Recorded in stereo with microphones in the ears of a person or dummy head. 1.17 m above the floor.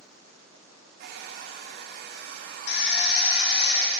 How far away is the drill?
About 2.5 m.